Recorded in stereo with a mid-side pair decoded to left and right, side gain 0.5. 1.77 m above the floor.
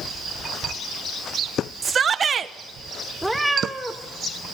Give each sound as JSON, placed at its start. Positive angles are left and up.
{"t": 1.8, "sound": "a shout", "azimuth_deg": -40, "distance_m": 1.3}
{"t": 3.2, "sound": "a cat meowing", "azimuth_deg": -5, "distance_m": 3.0}